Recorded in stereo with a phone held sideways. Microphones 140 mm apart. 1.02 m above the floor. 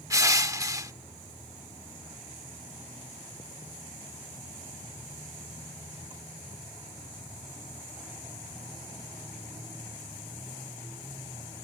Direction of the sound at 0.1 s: 25° right (ahead or behind).